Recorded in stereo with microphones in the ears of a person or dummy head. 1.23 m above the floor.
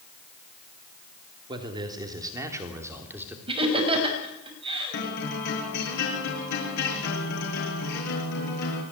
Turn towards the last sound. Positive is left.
turn(degrees=60)  # may be behind; listen again after turning